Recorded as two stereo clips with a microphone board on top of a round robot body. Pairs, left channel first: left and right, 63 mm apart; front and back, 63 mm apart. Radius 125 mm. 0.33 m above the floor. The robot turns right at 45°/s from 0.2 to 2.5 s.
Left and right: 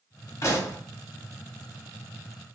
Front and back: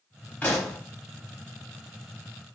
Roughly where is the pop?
Ahead left.